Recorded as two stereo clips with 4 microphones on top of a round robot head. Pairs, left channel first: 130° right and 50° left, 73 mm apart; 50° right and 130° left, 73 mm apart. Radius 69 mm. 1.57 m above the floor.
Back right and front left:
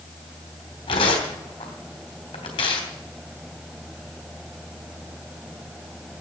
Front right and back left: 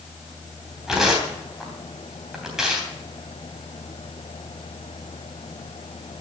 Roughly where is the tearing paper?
Behind right.